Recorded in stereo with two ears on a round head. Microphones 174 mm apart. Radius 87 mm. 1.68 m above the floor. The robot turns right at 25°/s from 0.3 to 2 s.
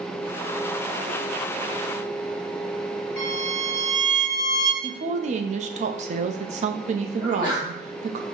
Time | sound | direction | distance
3.2 | a violin | 5° left (ahead or behind) | 2.5 m
4.8 | a woman speaking | 40° right (ahead or behind) | 0.5 m
7.2 | a sneeze | 10° left (ahead or behind) | 2.5 m